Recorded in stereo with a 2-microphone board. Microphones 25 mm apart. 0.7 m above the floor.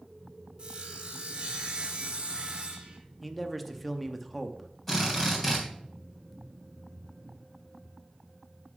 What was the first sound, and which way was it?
Sawing, 40° right (ahead or behind).